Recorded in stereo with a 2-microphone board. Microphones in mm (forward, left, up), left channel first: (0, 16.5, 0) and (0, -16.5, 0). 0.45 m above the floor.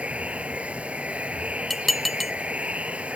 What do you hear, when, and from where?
0.0 s running water: 40° right (ahead or behind)
1.7 s dishes clattering: centre (ahead or behind)